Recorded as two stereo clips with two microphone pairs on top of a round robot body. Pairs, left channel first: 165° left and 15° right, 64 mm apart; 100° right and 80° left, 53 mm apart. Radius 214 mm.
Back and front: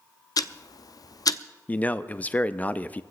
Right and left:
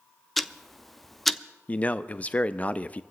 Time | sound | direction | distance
0.4 | ticking | straight behind | 0.7 m
1.7 | a man speaking | 135° right | 0.9 m